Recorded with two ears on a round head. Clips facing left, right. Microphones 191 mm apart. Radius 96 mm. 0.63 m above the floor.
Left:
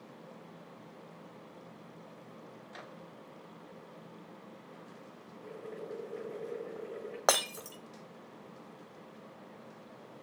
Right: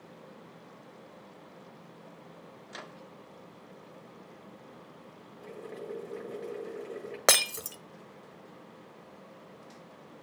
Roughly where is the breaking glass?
Right.